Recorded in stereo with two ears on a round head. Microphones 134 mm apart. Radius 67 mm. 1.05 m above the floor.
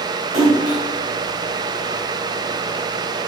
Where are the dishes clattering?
No dishes clattering in this recording.